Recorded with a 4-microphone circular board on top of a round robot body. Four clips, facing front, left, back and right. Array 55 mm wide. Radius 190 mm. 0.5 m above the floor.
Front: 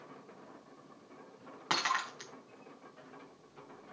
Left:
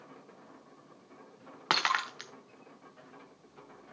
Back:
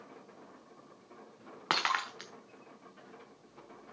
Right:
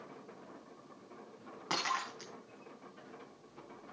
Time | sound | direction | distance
1.7 | breaking glass | 120° left | 1.3 m